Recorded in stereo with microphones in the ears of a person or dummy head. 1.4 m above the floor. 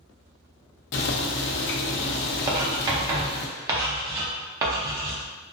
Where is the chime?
I don't hear a chime.